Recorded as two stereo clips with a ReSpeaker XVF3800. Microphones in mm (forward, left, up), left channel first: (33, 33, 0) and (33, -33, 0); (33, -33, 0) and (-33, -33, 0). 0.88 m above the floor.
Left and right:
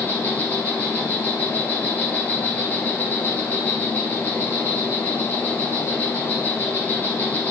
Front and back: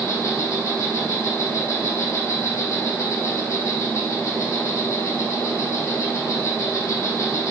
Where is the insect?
30° left, 2 m.